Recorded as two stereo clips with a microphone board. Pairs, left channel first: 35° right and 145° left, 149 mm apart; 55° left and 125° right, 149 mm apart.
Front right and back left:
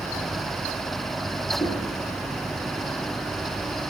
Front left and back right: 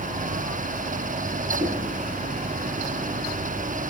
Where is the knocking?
90° right, 3 m.